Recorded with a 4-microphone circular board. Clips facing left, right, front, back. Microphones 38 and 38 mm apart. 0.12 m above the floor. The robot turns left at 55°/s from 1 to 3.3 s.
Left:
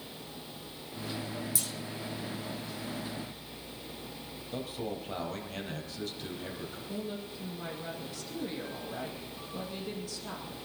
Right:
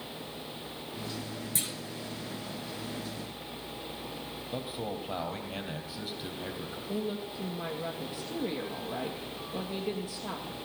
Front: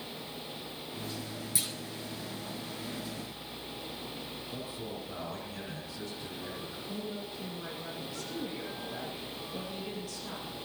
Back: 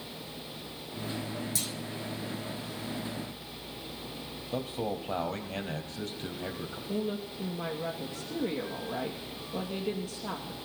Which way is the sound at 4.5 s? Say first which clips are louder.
Even, back 10 dB; 165° right.